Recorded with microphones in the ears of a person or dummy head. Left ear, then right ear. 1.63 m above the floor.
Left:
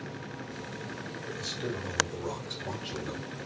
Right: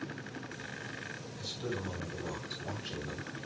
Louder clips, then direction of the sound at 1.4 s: Left 3 dB; 40° left (ahead or behind).